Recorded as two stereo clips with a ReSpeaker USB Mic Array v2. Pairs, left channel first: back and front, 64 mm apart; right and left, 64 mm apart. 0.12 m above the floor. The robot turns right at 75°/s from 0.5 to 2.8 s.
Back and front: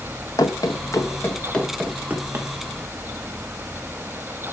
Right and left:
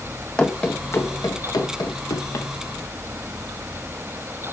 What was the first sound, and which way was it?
Running footsteps, 165° right.